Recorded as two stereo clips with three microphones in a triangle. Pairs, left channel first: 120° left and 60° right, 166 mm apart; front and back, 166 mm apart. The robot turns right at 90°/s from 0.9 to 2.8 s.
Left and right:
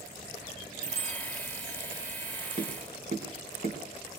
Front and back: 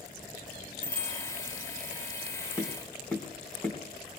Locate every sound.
0.8 s a bicycle bell: 120° left, 2 m; by 1.2 s 155° left, 2 m
2.6 s tapping: 100° right, 3.5 m; by 3.8 s 80° right, 3.5 m